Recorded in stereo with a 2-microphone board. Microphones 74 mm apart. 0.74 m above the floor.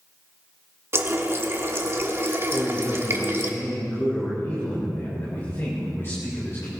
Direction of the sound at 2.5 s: 35° left (ahead or behind).